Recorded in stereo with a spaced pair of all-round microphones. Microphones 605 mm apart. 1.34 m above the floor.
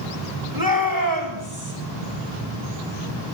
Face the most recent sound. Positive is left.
turn(degrees=-30)  # may be behind; listen again after turning